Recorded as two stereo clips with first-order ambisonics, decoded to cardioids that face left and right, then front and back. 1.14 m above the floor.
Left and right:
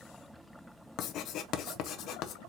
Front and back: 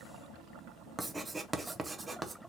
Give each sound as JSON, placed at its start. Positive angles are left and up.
{"t": 1.0, "sound": "writing", "azimuth_deg": 105, "distance_m": 0.7}